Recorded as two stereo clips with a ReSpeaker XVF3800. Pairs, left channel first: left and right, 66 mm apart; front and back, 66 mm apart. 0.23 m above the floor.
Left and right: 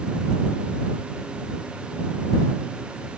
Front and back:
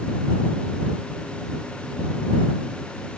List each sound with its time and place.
Only background noise.